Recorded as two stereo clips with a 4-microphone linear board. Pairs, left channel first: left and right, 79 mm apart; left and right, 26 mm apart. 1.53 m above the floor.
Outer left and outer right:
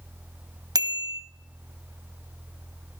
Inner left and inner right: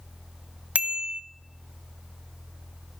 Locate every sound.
0.8 s a bicycle bell: 55° right (ahead or behind), 2 m